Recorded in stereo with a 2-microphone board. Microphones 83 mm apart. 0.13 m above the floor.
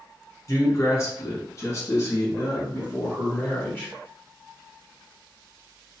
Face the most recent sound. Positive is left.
turn(degrees=15)  # may be behind; listen again after turning